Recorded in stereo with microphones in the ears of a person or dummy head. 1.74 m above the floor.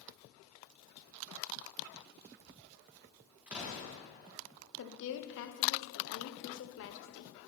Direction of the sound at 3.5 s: 5° right (ahead or behind).